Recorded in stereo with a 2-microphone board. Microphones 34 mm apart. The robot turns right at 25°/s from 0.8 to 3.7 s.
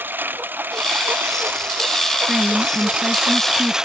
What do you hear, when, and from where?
0.0 s a lawn mower: 80° right; by 3.9 s 20° right (ahead or behind)
2.3 s a woman speaking: 15° right; by 3.8 s 25° left